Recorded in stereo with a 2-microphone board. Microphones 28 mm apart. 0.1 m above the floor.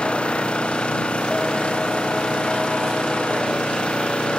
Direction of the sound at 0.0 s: 40° left (ahead or behind).